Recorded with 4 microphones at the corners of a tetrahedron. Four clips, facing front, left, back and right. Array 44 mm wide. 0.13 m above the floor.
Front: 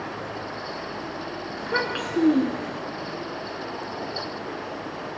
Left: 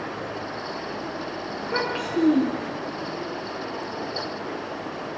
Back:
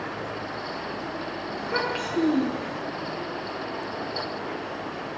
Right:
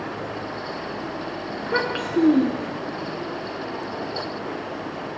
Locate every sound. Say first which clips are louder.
1.6 s a child speaking: right 3 dB, front 1 dB; 60° right, 1.0 m